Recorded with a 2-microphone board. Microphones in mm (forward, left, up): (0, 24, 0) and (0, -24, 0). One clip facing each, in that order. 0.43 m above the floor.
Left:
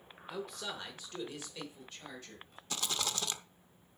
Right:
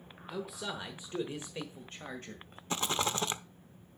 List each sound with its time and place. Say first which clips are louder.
0.3 s a man speaking: right 2 dB; centre (ahead or behind), 1.0 m; by 2.6 s 45° right (ahead or behind), 1.9 m
2.7 s a rattle: right 5 dB; 30° right (ahead or behind), 0.5 m